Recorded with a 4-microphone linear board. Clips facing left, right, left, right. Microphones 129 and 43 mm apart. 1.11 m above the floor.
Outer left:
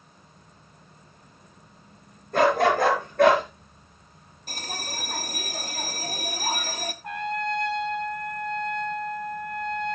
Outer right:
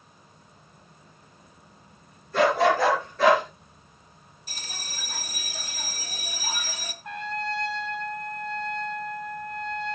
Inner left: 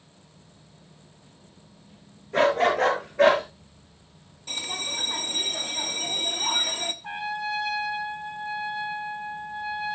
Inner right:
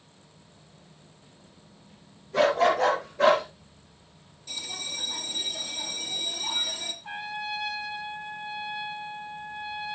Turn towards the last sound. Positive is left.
turn(degrees=55)  # may be behind; listen again after turning